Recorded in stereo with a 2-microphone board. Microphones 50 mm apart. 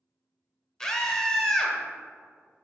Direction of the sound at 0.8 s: 10° left (ahead or behind).